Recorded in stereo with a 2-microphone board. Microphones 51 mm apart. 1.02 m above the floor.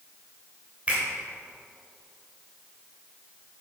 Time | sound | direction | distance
0.9 | a finger snap | 25° right (ahead or behind) | 3 m